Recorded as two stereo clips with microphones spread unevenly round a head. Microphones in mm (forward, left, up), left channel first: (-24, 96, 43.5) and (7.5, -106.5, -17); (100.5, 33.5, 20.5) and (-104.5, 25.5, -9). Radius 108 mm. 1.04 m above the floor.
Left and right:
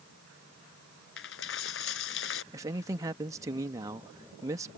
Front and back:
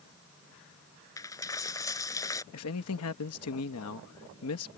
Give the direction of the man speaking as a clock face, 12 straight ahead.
12 o'clock.